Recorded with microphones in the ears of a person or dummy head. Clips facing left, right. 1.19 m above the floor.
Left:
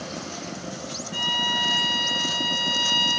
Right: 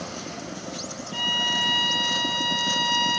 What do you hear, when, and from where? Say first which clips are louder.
1.1 s a violin: even; 15° left (ahead or behind), 1.5 m